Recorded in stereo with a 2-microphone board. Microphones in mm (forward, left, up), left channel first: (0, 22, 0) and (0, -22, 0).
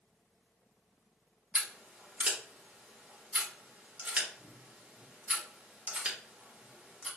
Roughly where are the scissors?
Right.